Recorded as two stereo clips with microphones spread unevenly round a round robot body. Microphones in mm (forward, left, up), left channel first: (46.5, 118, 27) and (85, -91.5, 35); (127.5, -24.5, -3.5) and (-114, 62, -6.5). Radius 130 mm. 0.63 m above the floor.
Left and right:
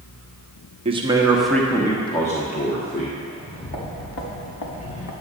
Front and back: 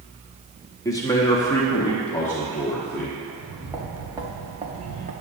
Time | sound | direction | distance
0.8 | a man speaking | 80° right | 1.0 m
3.3 | footsteps | 75° left | 3 m